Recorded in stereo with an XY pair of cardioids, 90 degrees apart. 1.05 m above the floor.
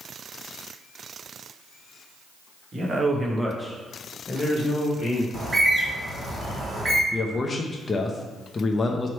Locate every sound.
2.7 s a man speaking: 45° right, 1.3 m; by 5.2 s 55° left, 1.8 m
5.3 s a bird: 30° right, 1.8 m
7.1 s a man speaking: 35° left, 0.6 m